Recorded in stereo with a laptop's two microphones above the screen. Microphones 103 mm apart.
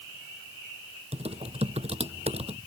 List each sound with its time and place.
1.1 s typing on a keyboard: 80° right